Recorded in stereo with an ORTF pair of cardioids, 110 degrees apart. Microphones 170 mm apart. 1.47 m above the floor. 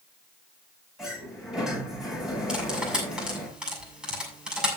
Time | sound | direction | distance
1.0 | a sliding door | 5° right | 7.5 m
2.5 | cutlery clinking | 5° right | 6.5 m